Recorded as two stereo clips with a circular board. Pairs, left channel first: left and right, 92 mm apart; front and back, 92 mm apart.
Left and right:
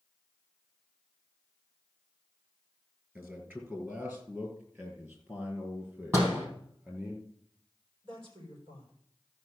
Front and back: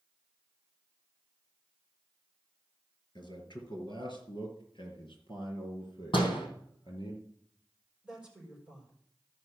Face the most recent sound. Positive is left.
turn(degrees=-105)